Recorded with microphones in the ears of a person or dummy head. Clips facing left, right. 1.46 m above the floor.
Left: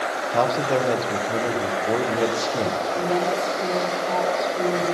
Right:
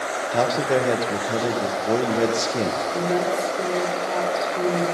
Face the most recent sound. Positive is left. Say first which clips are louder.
# right 1 dB
turn(degrees=-25)  # may be behind; listen again after turning